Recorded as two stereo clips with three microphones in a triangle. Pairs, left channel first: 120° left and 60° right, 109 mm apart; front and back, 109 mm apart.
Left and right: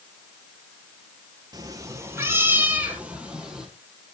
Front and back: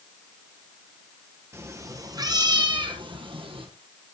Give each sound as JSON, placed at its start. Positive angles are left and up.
{"t": 1.5, "sound": "a cat meowing", "azimuth_deg": -110, "distance_m": 1.7}